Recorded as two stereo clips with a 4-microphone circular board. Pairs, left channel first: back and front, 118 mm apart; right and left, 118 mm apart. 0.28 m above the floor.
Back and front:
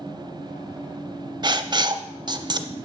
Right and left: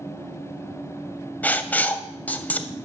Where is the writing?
20° right, 0.5 m.